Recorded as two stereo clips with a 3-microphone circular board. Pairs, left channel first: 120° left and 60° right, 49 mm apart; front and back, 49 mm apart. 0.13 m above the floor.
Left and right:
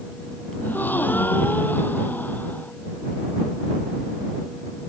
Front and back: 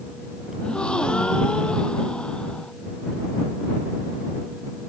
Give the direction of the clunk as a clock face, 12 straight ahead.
No clunk in this recording.